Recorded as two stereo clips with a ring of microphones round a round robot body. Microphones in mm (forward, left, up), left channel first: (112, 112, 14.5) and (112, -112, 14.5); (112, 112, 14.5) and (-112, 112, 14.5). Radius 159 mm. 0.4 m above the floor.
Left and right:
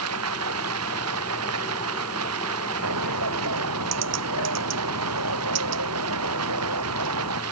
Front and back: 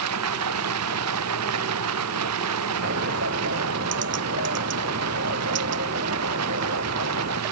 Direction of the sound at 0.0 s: 135° right.